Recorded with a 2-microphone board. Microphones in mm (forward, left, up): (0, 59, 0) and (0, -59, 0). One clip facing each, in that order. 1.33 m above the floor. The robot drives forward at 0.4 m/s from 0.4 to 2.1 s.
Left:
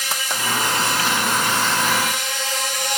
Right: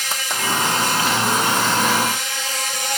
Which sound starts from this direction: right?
An insect, at 0.0 s.